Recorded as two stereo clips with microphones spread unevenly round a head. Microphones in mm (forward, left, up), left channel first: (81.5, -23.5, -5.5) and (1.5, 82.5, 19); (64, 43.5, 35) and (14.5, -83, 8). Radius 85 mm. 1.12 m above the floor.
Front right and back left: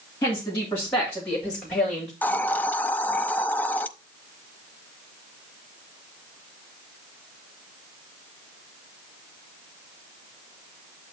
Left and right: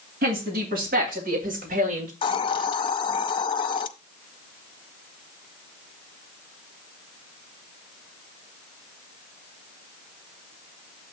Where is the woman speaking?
130° right, 2.5 m; by 2.1 s 140° right, 1.5 m.